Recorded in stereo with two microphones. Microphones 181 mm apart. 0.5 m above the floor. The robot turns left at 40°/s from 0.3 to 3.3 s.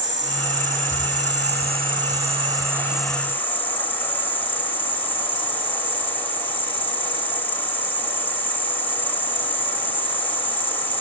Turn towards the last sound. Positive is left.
turn(degrees=170)